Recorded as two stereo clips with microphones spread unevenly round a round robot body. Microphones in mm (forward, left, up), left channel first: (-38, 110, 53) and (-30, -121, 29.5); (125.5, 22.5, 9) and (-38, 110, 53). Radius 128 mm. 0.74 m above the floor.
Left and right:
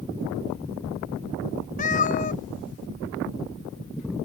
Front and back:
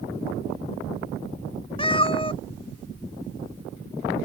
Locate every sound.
1.8 s a cat meowing: 35° left